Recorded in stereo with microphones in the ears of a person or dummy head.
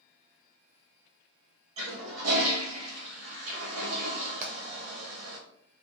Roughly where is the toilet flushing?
Right.